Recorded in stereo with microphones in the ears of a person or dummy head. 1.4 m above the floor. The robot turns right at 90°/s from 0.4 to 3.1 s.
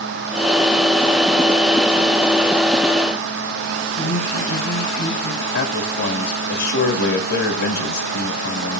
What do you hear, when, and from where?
4.0 s a woman speaking: 50° left (ahead or behind), 7.5 m
5.5 s a man speaking: 75° left (ahead or behind), 2.5 m